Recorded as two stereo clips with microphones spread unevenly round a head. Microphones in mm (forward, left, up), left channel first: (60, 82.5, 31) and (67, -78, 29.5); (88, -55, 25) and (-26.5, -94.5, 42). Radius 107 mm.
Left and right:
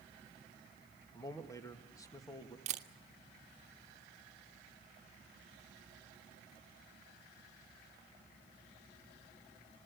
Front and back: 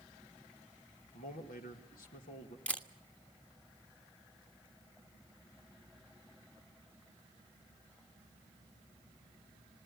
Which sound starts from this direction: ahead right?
A camera shutter, at 2.7 s.